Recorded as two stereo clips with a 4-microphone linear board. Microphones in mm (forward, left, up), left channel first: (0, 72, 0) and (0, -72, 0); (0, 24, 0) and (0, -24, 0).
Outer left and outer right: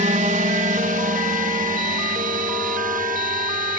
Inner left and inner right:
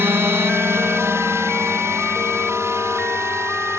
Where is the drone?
60° right (ahead or behind); by 3.8 s 75° right (ahead or behind).